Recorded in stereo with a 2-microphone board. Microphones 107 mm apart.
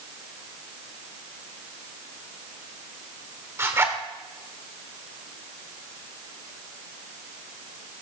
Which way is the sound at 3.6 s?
25° right (ahead or behind).